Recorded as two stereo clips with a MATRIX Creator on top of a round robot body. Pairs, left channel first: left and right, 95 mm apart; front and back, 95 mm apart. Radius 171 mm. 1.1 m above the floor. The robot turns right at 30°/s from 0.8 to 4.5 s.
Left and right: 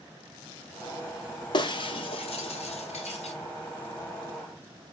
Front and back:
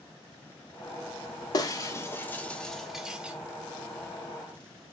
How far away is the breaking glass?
About 0.9 m.